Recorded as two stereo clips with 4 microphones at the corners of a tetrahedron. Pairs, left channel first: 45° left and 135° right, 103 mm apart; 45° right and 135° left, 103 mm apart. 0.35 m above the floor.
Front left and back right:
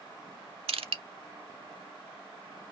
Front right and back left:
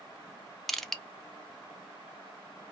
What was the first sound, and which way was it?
Crushing, 130° right.